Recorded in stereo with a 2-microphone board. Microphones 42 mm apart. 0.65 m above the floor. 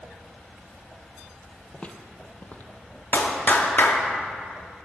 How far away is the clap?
About 1.0 m.